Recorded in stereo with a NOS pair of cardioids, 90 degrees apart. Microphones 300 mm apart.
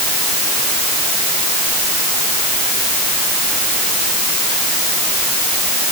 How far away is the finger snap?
I don't hear a finger snap.